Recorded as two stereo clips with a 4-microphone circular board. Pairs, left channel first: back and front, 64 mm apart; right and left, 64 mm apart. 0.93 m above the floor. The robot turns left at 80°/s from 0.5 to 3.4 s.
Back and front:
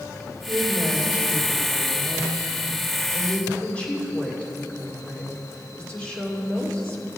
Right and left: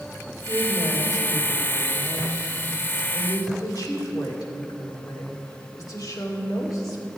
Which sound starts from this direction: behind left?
A woman speaking, at 0.5 s.